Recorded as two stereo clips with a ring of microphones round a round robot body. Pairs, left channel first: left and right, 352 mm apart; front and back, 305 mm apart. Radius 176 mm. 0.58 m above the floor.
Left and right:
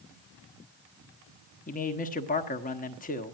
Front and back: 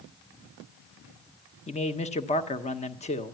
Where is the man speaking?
45° left, 1.1 m.